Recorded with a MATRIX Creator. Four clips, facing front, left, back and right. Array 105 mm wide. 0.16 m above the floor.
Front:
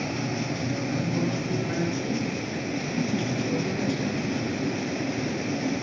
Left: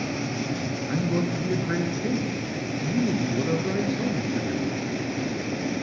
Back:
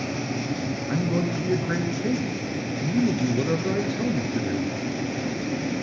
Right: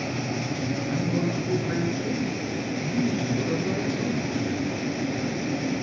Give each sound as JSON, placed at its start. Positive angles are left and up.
{"t": 0.9, "sound": "a man speaking", "azimuth_deg": 145, "distance_m": 2.5}